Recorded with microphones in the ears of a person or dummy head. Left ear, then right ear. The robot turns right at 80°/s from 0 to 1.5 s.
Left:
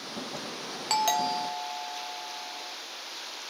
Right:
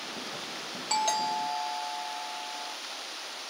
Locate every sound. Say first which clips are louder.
0.9 s a doorbell: left 2 dB; 135° left, 1.3 m; by 2.7 s 175° right, 1.3 m